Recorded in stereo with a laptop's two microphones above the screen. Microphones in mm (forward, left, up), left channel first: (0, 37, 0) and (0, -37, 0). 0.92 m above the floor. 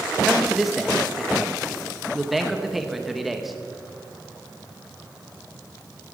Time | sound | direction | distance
0.2 | a man speaking | centre (ahead or behind) | 0.6 m